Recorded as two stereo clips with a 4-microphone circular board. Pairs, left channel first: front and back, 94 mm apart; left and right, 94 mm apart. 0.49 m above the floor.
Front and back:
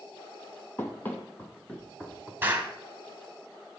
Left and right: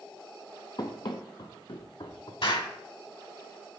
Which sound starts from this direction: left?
An explosion, at 2.4 s.